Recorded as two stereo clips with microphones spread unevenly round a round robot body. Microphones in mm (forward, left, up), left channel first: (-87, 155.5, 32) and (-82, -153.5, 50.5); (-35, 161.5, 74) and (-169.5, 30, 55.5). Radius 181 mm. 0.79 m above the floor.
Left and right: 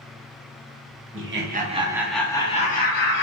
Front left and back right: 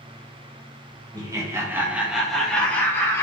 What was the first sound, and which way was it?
Laughter, 85° right.